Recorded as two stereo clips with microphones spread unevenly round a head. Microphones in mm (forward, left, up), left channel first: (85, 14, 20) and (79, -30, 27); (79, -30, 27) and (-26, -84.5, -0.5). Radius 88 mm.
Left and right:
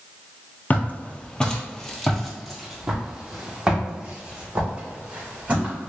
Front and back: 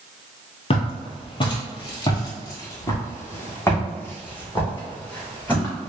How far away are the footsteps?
About 1.5 m.